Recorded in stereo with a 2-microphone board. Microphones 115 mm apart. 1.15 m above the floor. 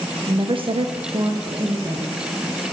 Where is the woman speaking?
40° right (ahead or behind), 0.8 m; by 2.2 s 35° right (ahead or behind), 1.7 m.